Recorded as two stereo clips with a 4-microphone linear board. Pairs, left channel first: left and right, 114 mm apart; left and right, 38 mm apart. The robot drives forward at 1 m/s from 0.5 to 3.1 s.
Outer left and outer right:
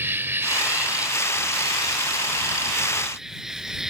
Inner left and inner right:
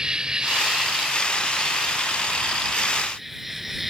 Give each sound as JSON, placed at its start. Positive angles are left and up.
{"t": 0.0, "sound": "an insect", "side_deg": -20}